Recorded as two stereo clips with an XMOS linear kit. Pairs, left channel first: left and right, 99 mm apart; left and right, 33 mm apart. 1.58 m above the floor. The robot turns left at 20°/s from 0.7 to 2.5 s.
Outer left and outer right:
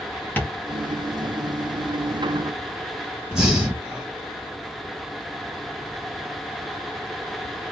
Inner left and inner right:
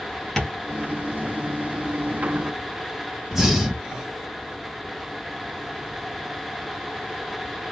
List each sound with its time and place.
0.4 s tapping: 15° left (ahead or behind), 1.6 m
3.3 s breathing: 5° right (ahead or behind), 1.7 m